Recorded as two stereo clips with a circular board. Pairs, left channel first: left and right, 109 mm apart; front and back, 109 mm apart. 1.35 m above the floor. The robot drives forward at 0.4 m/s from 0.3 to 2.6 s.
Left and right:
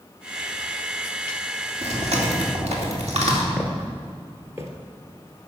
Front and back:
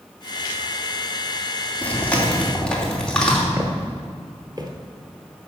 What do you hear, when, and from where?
1.8 s chewing: 75° right, 2.5 m; by 3.5 s 85° right, 2.5 m
3.6 s footsteps: 165° right, 1.6 m; by 4.7 s 145° right, 1.9 m